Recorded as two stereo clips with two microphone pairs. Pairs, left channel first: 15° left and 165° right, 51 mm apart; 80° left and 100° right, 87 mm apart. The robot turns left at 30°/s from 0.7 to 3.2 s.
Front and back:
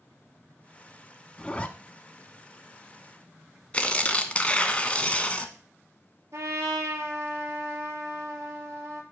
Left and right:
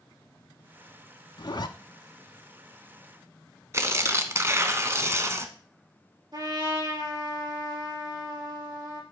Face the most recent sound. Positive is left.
turn(degrees=-135)